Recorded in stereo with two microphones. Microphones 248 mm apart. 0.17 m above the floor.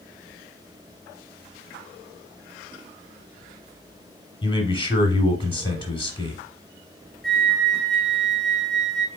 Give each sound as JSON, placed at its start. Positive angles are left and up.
{"t": 4.4, "sound": "a man speaking", "side_deg": 20, "distance_m": 1.1}
{"t": 7.2, "sound": "a flute", "side_deg": 0, "distance_m": 0.9}